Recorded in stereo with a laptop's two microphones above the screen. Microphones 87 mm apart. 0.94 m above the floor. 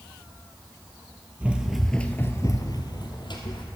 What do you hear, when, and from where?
1.4 s running footsteps: 15° right (ahead or behind), 1.4 m; by 3.6 s 60° left (ahead or behind), 2 m